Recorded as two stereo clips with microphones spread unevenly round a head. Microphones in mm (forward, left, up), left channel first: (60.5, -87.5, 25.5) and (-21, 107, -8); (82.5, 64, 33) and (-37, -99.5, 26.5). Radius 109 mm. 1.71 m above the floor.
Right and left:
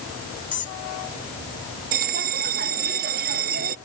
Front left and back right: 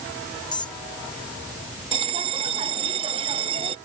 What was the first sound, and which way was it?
A squeak, 15° right.